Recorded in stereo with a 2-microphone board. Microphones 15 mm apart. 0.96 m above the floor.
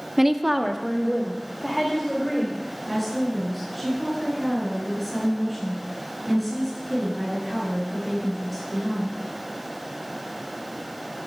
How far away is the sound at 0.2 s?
About 0.6 m.